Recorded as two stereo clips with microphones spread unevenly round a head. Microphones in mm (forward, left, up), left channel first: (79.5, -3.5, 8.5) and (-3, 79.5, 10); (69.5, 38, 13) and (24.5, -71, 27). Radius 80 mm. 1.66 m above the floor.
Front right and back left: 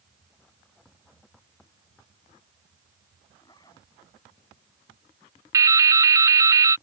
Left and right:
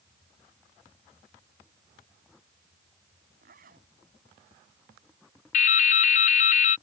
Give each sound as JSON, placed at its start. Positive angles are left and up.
{"t": 3.4, "sound": "a zipper", "azimuth_deg": -115}
{"t": 5.5, "sound": "dripping", "azimuth_deg": 80}